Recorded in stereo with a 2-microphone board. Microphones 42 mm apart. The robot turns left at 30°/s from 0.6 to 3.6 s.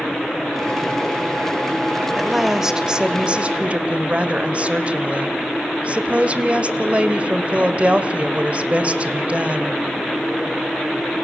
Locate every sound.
2.2 s a woman speaking: 5° right, 1.6 m; by 9.8 s 45° right, 1.6 m